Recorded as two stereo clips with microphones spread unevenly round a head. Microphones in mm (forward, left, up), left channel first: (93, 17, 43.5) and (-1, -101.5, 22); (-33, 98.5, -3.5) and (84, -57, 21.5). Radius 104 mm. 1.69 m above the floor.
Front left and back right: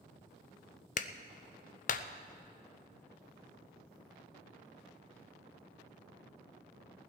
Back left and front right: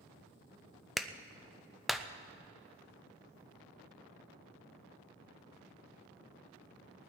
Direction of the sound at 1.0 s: 30° left.